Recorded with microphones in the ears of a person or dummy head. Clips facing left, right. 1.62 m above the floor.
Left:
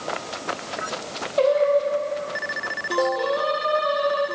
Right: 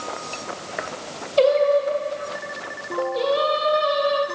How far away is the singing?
About 1.3 m.